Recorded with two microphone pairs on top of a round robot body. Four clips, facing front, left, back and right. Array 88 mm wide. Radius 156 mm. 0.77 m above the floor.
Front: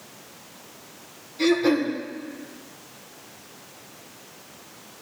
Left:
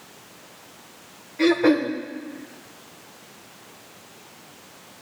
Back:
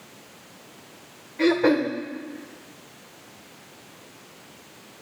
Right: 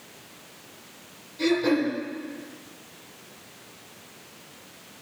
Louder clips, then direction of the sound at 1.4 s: Left 4 dB, back 1 dB; 135° left.